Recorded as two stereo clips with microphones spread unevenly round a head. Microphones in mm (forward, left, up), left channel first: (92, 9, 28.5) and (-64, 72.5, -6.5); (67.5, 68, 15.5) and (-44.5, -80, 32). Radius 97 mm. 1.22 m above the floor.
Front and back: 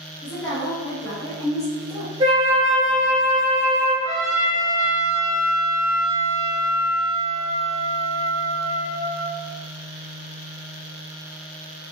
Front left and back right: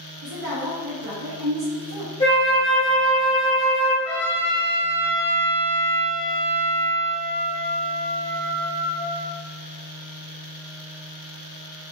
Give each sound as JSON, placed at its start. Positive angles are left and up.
{"t": 0.2, "sound": "a woman speaking", "azimuth_deg": -100, "distance_m": 0.7}
{"t": 2.2, "sound": "a flute", "azimuth_deg": 90, "distance_m": 0.9}
{"t": 4.0, "sound": "a trumpet", "azimuth_deg": 45, "distance_m": 1.5}